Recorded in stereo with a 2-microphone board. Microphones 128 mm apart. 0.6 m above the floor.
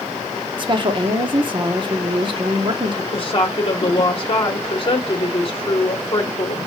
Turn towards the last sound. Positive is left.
turn(degrees=40)  # may be behind; listen again after turning